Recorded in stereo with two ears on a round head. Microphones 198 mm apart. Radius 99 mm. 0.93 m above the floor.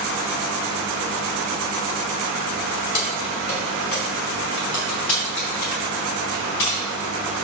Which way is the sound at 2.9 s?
40° left (ahead or behind).